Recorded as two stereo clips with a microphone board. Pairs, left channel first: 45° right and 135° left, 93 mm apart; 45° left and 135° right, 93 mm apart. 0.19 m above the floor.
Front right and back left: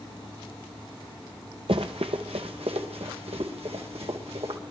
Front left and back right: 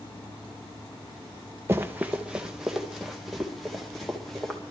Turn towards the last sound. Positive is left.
turn(degrees=130)